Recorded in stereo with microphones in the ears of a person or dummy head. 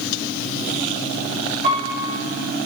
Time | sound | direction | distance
1.6 | a piano | 35° right (ahead or behind) | 1.9 m